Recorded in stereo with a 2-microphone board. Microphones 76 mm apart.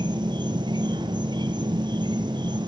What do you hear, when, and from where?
0.0 s an insect: 80° right, 1.0 m